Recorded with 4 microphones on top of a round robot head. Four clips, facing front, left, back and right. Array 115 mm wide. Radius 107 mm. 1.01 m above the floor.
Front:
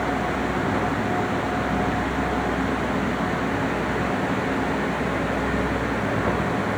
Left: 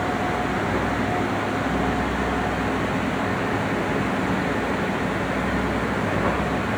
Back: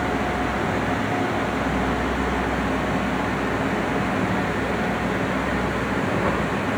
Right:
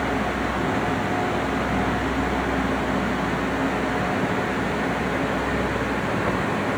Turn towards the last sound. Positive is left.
No sound to turn to.